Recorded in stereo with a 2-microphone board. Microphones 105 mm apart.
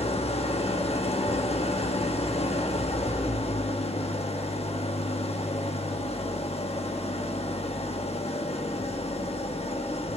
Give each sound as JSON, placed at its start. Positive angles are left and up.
{"t": 0.0, "sound": "an engine running", "side_deg": 65, "distance_m": 1.0}